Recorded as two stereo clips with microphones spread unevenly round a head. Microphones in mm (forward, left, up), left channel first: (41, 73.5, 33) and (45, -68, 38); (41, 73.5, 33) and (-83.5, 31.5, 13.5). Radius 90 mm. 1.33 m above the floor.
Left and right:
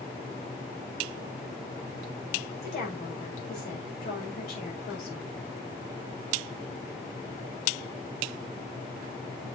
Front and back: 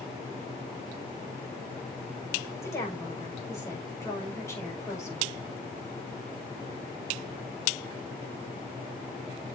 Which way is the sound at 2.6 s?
85° left.